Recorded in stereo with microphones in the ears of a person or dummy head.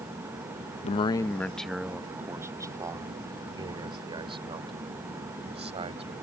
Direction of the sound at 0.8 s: 35° left (ahead or behind).